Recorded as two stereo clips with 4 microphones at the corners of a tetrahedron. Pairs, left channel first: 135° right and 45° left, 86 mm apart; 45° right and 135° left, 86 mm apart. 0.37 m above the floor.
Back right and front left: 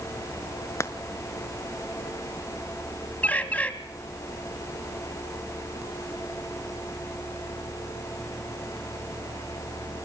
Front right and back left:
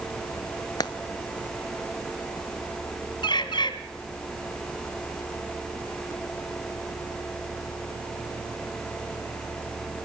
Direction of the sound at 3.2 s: 65° right.